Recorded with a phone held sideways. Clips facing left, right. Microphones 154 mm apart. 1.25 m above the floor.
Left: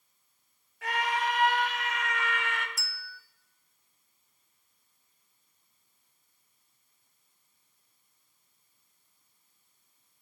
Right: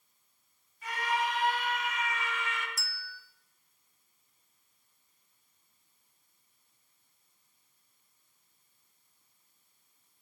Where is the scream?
85° left, 3.5 m; by 2.7 s 65° left (ahead or behind), 1.5 m.